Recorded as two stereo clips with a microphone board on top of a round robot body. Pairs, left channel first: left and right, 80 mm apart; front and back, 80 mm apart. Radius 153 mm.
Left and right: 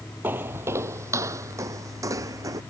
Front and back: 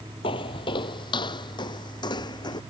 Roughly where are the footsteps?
Ahead.